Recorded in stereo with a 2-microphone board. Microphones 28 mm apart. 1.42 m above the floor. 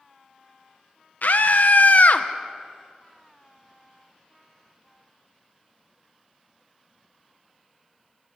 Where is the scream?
75° left (ahead or behind), 1.4 m; by 2.3 s 55° left (ahead or behind), 1.4 m.